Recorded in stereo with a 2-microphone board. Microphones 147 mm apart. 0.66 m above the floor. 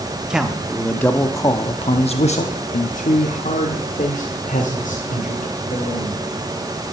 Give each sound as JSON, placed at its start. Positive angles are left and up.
{"t": 0.3, "sound": "a man speaking", "side_deg": -5, "distance_m": 1.1}